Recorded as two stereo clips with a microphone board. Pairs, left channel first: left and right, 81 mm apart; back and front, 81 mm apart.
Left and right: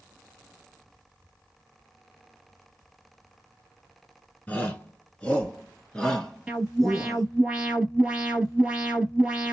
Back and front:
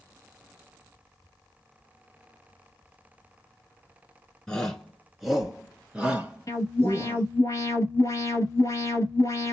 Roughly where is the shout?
Behind left.